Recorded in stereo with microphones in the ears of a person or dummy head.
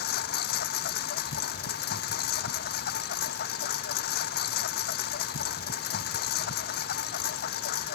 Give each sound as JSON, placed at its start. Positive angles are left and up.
{"t": 0.0, "sound": "a lawn mower", "side_deg": 55}